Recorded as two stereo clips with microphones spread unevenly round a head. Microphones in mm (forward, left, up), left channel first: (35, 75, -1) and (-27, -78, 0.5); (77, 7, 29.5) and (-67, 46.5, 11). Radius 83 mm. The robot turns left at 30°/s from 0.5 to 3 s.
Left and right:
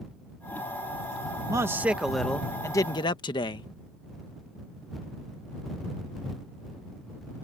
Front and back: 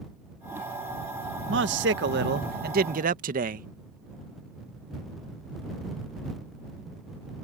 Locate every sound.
1.5 s a man speaking: 175° left; by 3.7 s 130° left